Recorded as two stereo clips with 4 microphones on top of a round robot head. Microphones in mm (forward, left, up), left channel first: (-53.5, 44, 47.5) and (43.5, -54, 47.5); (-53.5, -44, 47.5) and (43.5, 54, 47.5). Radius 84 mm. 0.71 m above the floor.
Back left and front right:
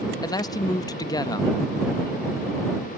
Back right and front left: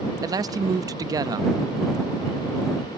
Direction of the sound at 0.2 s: 90° left.